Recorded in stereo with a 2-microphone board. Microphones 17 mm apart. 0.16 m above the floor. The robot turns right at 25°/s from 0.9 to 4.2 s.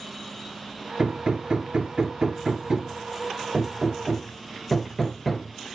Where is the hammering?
60° right (ahead or behind), 1.1 m; by 5.5 s 5° left (ahead or behind), 1.1 m.